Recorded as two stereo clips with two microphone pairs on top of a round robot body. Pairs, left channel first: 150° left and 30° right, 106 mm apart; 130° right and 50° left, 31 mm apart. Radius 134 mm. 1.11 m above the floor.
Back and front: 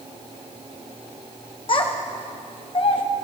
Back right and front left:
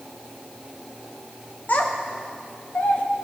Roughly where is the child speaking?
Behind.